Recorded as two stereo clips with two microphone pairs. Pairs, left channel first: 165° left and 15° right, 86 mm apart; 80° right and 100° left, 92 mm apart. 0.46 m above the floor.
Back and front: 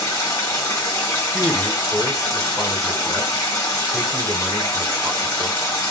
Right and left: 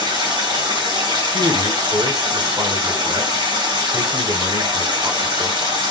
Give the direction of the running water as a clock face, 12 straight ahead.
8 o'clock.